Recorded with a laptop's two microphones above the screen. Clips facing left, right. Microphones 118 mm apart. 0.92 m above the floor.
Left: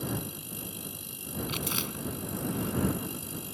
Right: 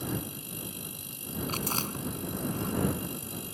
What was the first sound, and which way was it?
Chewing, 40° right (ahead or behind).